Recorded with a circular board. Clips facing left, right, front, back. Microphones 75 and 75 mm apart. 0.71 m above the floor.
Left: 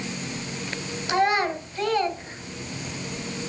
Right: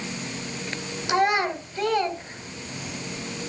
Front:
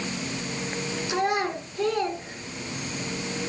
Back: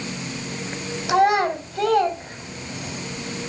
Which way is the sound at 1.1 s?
170° right.